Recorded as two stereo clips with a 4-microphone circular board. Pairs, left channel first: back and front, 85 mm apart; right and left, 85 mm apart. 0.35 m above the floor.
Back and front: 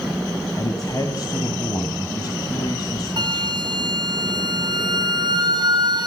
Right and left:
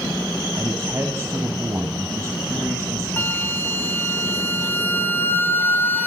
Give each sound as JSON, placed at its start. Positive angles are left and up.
{"t": 0.6, "sound": "a man speaking", "azimuth_deg": 145, "distance_m": 2.5}
{"t": 3.2, "sound": "a flute", "azimuth_deg": -25, "distance_m": 2.0}